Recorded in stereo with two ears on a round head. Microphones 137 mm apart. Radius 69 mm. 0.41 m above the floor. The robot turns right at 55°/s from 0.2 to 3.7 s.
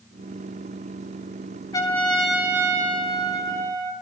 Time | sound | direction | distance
1.7 | a trumpet | 150° left | 4 m